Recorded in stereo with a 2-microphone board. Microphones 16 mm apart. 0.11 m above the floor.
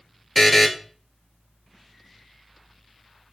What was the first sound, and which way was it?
A buzzer, 10° left (ahead or behind).